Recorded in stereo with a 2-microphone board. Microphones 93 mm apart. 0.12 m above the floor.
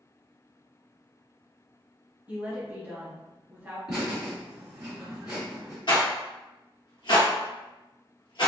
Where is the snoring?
No snoring in this recording.